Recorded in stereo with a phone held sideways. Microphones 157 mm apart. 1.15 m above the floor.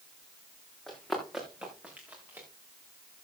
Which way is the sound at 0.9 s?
Centre (ahead or behind).